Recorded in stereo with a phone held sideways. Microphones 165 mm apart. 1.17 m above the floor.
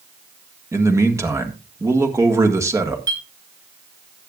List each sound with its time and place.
0.7 s a man speaking: 20° right (ahead or behind), 1.5 m
3.1 s a clink: 25° right (ahead or behind), 4 m